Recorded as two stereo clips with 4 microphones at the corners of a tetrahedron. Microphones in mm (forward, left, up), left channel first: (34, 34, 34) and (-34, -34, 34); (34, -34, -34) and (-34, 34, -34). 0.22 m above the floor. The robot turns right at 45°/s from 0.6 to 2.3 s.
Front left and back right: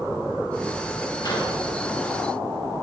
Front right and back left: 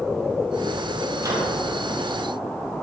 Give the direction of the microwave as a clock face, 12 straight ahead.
9 o'clock.